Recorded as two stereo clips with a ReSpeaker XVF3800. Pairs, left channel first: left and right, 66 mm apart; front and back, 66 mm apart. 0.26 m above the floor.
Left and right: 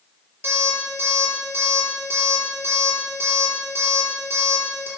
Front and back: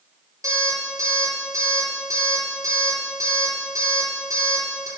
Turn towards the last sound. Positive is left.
turn(degrees=-140)